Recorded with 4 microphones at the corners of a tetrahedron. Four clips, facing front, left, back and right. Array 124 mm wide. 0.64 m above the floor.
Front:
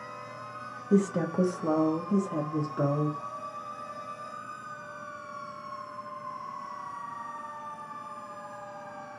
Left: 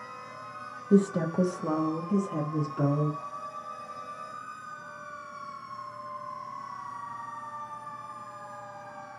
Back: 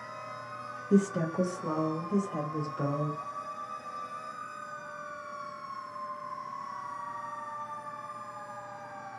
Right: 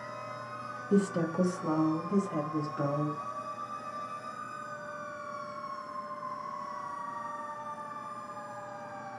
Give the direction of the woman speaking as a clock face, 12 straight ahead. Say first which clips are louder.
Left 4 dB, front 1 dB; 9 o'clock.